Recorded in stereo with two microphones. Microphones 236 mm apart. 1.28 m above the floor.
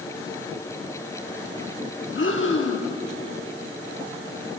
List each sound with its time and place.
2.1 s breathing: 55° left (ahead or behind), 1.2 m